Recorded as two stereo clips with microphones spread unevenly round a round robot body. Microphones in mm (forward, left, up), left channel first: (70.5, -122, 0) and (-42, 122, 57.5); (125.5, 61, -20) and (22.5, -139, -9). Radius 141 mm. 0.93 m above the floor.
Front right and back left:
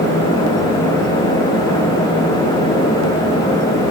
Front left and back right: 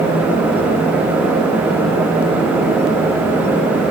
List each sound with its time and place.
Only background noise.